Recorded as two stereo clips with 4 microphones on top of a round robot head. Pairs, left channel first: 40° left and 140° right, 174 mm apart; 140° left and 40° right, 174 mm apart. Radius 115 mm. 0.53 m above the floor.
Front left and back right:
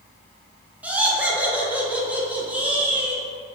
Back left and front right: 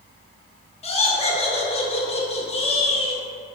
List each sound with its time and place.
0.8 s laughter: 145° left, 0.7 m